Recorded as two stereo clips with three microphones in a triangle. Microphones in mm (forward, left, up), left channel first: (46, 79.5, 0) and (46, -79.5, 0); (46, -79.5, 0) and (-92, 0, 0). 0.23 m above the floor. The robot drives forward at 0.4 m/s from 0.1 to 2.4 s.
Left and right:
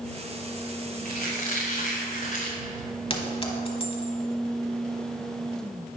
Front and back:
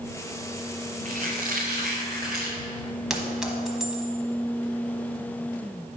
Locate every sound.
1.1 s a squeak: 120° left, 2 m; by 2.6 s 130° left, 2.5 m
3.1 s a clink: 65° left, 1.1 m